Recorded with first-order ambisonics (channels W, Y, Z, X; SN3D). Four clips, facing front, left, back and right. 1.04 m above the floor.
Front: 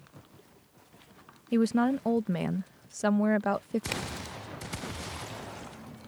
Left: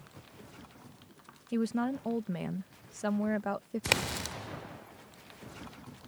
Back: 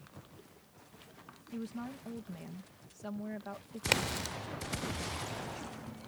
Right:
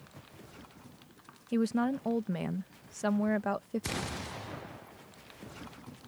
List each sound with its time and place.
1.5 s a woman speaking: 10° right
3.9 s a crack: 115° left